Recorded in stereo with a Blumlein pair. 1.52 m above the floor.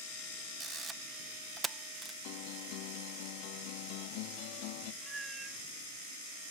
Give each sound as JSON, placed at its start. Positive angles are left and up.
{"t": 0.6, "sound": "a camera shutter", "azimuth_deg": -15}
{"t": 2.2, "sound": "a guitar", "azimuth_deg": 45}
{"t": 5.0, "sound": "a cat meowing", "azimuth_deg": -10}